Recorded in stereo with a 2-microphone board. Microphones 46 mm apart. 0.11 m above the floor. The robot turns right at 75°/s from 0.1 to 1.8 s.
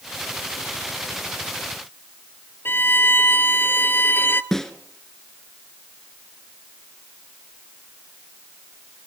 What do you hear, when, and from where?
2.6 s a violin: 50° left (ahead or behind), 0.8 m
4.5 s a snare drum: 10° left (ahead or behind), 1.6 m